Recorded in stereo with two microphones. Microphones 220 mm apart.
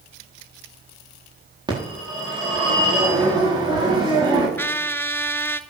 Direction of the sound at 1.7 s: 20° right (ahead or behind).